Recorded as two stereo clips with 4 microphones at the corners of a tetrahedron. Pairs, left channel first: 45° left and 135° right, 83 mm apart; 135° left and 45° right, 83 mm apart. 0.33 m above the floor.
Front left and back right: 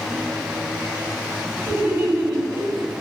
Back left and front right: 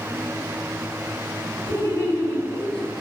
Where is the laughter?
170° left, 2.5 m; by 2.9 s 145° right, 2.5 m.